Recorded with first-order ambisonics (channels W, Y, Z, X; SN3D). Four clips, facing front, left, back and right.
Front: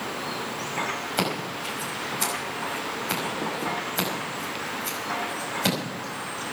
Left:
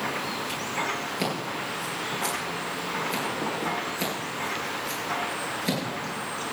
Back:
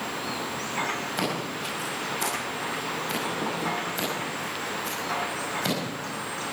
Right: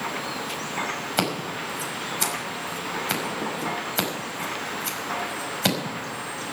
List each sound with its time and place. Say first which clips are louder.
1.2 s scissors: right 3 dB, front 1 dB; 75° right, 5 m